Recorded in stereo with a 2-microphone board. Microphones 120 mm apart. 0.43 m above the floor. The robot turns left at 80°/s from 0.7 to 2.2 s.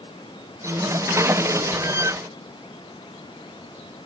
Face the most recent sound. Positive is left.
No sound to turn to.